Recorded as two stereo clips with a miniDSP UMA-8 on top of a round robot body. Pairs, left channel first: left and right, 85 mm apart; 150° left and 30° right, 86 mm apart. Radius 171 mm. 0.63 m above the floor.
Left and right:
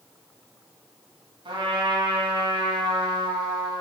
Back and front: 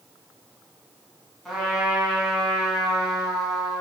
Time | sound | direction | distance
1.4 | a trumpet | 120° right | 1.9 m